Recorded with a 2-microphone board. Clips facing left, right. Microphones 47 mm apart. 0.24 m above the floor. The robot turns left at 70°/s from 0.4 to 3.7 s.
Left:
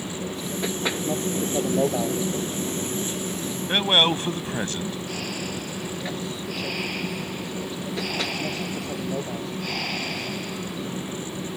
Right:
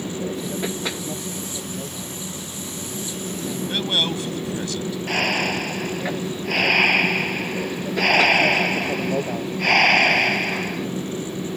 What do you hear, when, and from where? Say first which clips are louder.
0.0 s an aircraft: right 4 dB; 155° right; by 11.6 s 25° right
3.7 s a man speaking: left 4 dB; 35° left (ahead or behind)
5.1 s breathing: right 9 dB; 60° right (ahead or behind)